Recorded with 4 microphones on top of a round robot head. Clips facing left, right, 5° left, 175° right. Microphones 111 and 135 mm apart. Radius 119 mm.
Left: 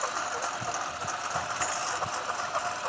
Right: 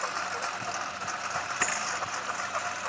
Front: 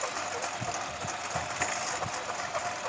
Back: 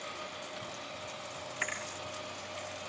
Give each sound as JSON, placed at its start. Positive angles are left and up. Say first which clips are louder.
{"t": 0.0, "sound": "a lawn mower", "louder": "left 1 dB, front 9 dB", "azimuth_deg": 10}
{"t": 1.6, "sound": "a thud", "louder": "left 1 dB, front 8 dB", "azimuth_deg": -65}